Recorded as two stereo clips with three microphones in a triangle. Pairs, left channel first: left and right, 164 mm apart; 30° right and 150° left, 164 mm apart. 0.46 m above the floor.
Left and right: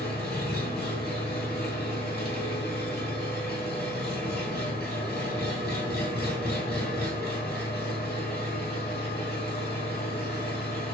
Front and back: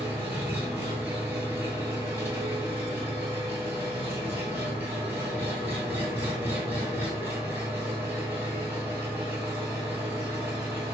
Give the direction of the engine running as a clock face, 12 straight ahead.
10 o'clock.